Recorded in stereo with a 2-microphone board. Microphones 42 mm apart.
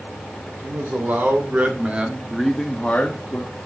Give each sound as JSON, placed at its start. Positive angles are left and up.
{"t": 0.6, "sound": "a man speaking", "side_deg": -55, "distance_m": 3.5}